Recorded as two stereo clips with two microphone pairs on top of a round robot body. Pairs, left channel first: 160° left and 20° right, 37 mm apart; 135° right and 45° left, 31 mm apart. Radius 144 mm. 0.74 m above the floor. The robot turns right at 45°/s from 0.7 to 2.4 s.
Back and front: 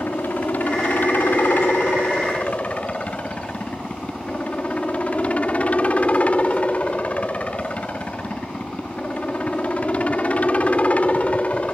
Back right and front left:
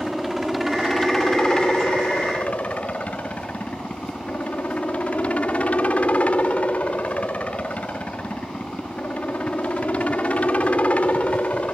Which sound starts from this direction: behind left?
A helicopter, at 0.0 s.